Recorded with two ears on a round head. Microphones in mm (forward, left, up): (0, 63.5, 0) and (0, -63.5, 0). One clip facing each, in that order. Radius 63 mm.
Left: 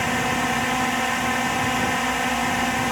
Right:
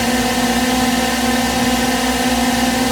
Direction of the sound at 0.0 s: 45° right (ahead or behind).